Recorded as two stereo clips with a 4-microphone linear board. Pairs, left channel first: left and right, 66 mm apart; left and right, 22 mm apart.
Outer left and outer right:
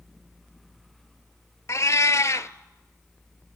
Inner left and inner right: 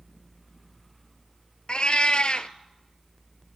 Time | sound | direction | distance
1.7 | a cat meowing | 50° left (ahead or behind) | 0.6 m